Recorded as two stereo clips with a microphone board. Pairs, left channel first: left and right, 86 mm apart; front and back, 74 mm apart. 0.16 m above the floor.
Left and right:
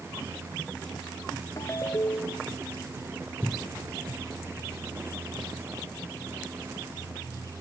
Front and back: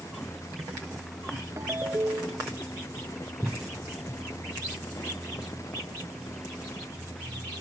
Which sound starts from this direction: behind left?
A ringtone, at 1.6 s.